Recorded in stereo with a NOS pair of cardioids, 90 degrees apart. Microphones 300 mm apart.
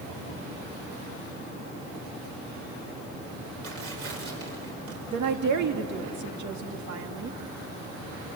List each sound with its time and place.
3.6 s tearing paper: 50° right, 5.5 m
5.1 s a woman speaking: 70° right, 2.5 m